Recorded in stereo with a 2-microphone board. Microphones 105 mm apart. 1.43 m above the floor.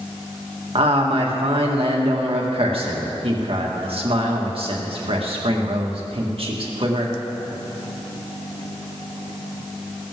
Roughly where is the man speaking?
Right.